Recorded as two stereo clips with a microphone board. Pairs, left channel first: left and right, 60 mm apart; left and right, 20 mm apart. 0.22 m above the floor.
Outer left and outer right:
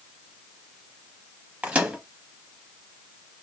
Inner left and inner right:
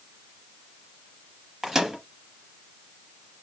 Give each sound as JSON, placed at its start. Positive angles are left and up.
{"t": 1.6, "sound": "a microwave", "side_deg": -20, "distance_m": 0.8}